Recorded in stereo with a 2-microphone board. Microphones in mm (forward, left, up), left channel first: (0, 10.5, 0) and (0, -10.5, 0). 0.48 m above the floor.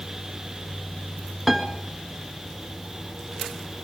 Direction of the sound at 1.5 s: Centre (ahead or behind).